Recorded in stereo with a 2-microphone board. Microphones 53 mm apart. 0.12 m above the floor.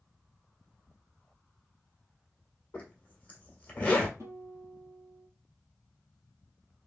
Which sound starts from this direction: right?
A guitar, at 4.2 s.